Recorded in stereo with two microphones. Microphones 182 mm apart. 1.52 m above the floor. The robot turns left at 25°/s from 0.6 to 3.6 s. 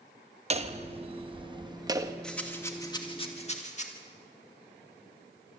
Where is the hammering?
115° right, 0.9 m; by 2.1 s 150° right, 0.9 m.